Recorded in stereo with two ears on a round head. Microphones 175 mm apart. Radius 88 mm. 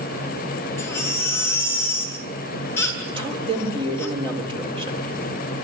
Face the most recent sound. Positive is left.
turn(degrees=-30)  # may be behind; listen again after turning